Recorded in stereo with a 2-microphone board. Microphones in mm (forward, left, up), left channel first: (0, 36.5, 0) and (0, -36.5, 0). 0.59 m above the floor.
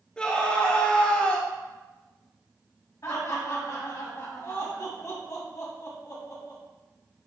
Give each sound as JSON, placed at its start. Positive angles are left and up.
{"t": 0.2, "sound": "a scream", "side_deg": 15, "distance_m": 1.1}
{"t": 3.0, "sound": "laughter", "side_deg": 50, "distance_m": 3.5}